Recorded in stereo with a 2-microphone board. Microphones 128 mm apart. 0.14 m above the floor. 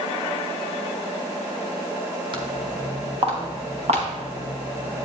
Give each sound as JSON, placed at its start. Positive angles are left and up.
{"t": 2.3, "sound": "footsteps", "side_deg": -35, "distance_m": 3.5}